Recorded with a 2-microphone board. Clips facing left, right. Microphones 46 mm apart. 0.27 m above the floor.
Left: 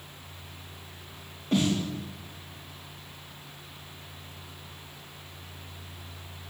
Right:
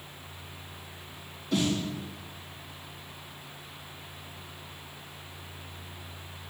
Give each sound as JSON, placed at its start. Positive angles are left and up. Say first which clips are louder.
{"t": 1.5, "sound": "a snare drum", "louder": "left 2 dB", "side_deg": 50, "distance_m": 4.5}